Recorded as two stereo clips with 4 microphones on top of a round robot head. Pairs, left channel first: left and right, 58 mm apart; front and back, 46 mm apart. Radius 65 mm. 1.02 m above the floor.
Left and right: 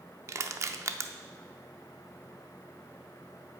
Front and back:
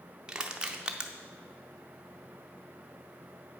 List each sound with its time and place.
0.3 s crushing: 110° right, 0.6 m